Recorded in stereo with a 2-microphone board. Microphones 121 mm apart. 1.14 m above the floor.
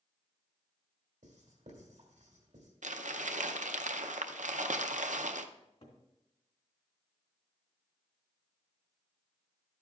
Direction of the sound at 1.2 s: 75° right (ahead or behind).